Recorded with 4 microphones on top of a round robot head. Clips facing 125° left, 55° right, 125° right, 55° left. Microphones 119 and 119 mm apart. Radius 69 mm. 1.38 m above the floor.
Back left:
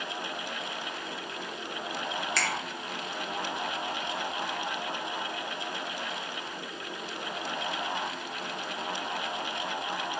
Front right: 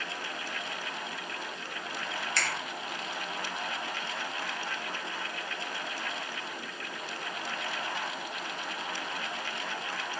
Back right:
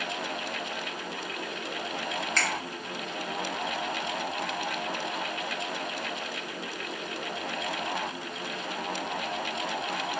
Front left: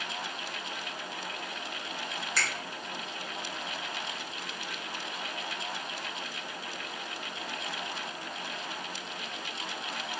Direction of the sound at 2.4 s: 140° left.